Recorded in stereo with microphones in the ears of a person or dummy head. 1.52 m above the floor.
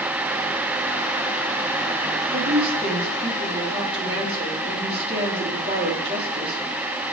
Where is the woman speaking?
35° right (ahead or behind), 3 m.